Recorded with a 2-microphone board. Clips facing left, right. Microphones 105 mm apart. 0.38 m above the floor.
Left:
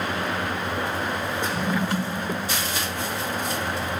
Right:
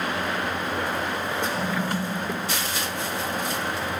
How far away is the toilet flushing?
About 4.5 m.